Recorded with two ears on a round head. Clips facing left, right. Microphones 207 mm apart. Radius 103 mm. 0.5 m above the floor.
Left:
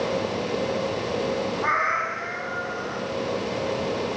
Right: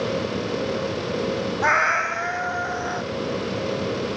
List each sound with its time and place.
1.6 s a cat meowing: 80° right, 1.1 m